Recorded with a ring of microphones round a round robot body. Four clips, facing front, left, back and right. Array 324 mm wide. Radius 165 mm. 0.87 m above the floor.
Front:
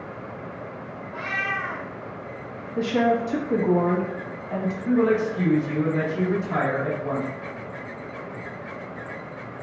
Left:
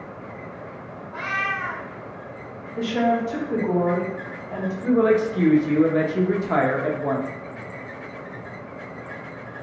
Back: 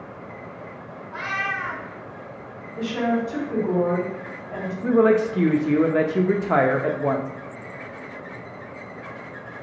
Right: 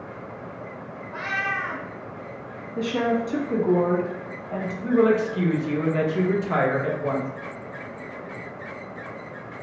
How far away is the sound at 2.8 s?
About 1.4 m.